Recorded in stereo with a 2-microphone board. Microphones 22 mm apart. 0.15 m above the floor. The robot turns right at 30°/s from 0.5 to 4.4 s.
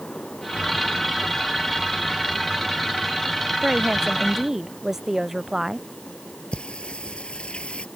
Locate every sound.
3.6 s a woman speaking: 45° right (ahead or behind); by 5.9 s 20° right (ahead or behind)
6.5 s singing: 55° left (ahead or behind)